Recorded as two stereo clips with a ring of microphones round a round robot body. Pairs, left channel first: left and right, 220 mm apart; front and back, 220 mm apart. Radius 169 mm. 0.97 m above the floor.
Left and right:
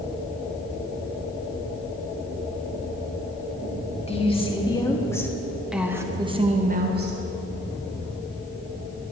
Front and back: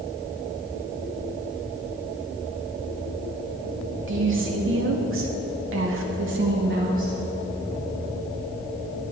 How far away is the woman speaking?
About 2.5 m.